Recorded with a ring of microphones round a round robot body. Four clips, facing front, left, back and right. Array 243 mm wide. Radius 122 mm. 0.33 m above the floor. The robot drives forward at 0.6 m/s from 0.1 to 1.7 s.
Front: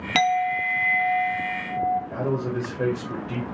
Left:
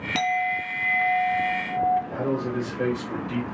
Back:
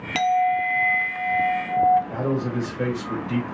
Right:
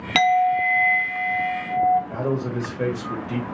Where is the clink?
65° right, 0.5 m; by 2.0 s 160° right, 0.9 m.